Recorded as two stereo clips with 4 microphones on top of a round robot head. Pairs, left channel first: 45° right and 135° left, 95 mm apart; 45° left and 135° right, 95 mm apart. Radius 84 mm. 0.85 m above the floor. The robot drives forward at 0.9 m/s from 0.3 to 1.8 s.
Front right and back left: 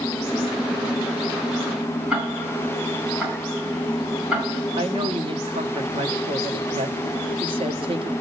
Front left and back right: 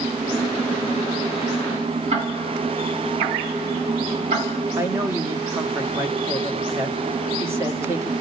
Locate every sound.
2.1 s ticking: 145° right, 5.5 m
4.8 s a woman speaking: 165° left, 1.9 m